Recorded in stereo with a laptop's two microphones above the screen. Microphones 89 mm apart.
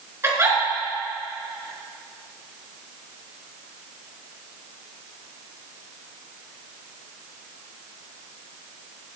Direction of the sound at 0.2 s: 30° right (ahead or behind).